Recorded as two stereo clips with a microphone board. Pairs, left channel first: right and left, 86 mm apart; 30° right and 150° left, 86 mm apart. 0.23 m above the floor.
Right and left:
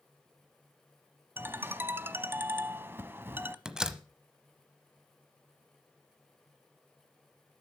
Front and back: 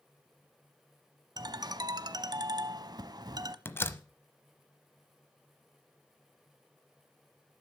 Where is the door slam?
15° left, 0.8 m.